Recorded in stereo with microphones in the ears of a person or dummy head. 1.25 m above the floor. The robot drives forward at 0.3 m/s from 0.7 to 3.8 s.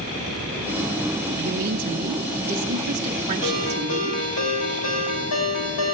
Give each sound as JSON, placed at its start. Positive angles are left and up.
{"t": 1.4, "sound": "a woman speaking", "side_deg": -50, "distance_m": 1.0}
{"t": 3.4, "sound": "a ringtone", "side_deg": 75, "distance_m": 4.0}